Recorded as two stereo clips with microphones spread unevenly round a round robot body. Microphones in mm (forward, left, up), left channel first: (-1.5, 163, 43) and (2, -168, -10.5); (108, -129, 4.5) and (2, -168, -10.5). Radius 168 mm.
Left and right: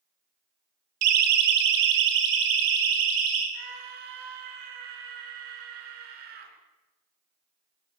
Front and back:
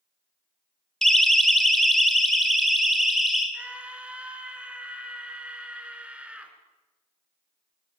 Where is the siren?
70° right, 2 m.